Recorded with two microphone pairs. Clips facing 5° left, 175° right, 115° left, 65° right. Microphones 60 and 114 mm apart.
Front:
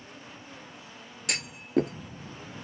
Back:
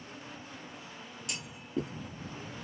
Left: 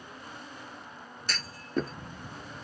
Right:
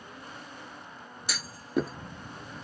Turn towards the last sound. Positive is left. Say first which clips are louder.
# front 9 dB, right 2 dB
turn(degrees=15)